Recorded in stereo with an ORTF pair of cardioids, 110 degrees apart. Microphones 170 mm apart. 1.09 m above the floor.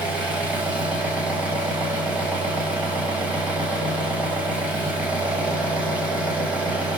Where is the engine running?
5° right, 0.8 m.